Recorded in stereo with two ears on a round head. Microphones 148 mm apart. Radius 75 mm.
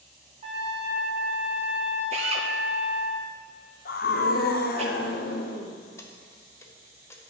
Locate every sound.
0.4 s a trumpet: 35° right (ahead or behind), 1.3 m
2.1 s a drill: 35° right (ahead or behind), 0.8 m
3.9 s a scream: 60° left (ahead or behind), 1.0 m
6.0 s keys jangling: 15° left (ahead or behind), 0.8 m